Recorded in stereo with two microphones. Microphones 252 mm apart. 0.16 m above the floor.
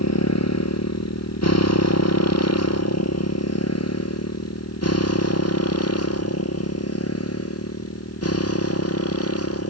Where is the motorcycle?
75° left (ahead or behind); by 9.7 s 60° left (ahead or behind).